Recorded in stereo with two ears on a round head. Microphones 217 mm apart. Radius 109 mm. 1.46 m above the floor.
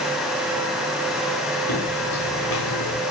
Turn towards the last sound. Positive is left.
turn(degrees=75)  # may be behind; listen again after turning